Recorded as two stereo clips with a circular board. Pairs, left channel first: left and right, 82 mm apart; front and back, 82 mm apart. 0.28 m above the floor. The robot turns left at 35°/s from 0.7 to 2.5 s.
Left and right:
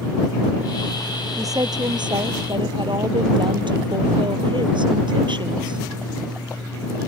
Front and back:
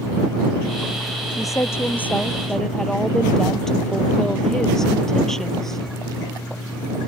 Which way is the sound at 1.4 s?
45° right.